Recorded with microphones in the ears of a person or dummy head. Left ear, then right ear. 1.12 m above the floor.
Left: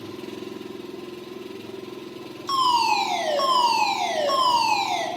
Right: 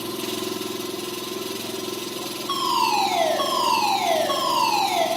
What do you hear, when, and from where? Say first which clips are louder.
0.0 s an engine running: right 7 dB; 30° right (ahead or behind), 1.2 m
2.5 s a fire alarm: left 2 dB; 60° left (ahead or behind), 7 m